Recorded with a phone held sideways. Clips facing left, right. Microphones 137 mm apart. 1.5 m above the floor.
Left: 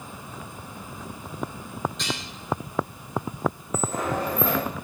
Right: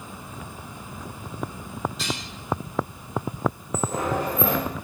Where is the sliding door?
15° right (ahead or behind), 3 m.